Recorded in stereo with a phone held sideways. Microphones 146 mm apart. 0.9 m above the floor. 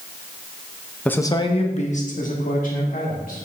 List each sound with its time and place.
1.1 s a man speaking: 5° left (ahead or behind), 0.8 m; by 3.5 s 65° left (ahead or behind), 3 m